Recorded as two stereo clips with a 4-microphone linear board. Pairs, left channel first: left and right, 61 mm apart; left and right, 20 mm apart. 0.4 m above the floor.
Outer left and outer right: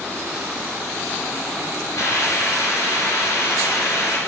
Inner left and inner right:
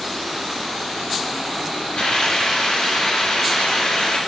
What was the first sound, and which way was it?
A hiss, 65° left (ahead or behind).